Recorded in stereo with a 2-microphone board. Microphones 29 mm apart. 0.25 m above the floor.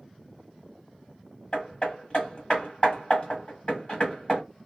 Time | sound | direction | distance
1.5 | hammering | 35° left (ahead or behind) | 1.4 m